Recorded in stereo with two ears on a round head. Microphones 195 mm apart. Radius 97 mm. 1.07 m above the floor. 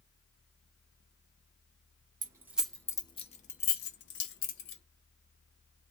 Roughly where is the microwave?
No microwave in this recording.